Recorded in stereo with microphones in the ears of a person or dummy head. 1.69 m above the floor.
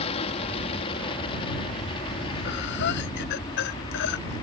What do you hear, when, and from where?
0.0 s an aircraft: 35° left (ahead or behind); by 4.4 s 25° left (ahead or behind)
2.5 s breathing: 65° left (ahead or behind)